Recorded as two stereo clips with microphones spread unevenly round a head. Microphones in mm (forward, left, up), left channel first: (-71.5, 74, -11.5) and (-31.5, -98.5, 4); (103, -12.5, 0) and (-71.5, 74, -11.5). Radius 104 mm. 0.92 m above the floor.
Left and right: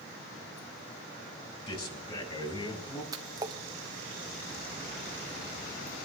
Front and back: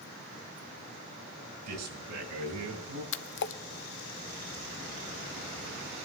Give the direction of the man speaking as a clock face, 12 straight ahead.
7 o'clock.